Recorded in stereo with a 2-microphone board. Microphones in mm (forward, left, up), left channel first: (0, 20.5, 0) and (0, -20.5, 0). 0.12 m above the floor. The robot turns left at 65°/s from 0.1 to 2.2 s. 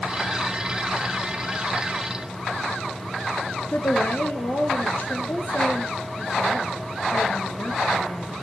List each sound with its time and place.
3.7 s a woman speaking: 50° left (ahead or behind), 1.7 m